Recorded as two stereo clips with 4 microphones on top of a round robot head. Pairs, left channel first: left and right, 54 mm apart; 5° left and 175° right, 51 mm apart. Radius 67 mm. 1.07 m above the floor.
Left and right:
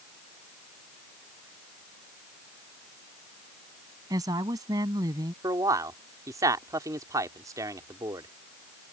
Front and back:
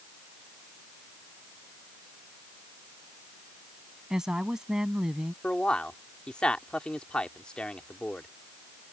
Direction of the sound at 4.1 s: 95° right.